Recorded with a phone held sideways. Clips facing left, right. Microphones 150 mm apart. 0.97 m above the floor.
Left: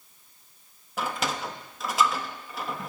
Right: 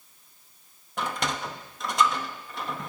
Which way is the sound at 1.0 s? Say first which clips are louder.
Even; 5° left (ahead or behind).